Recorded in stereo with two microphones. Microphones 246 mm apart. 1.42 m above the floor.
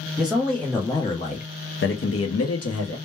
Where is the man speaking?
5° right (ahead or behind), 1.0 m; by 3.0 s 80° left, 0.9 m.